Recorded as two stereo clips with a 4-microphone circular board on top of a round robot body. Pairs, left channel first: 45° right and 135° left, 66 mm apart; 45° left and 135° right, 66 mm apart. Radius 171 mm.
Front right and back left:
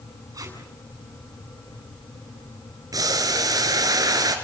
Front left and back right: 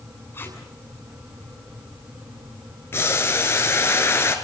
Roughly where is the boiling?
Left.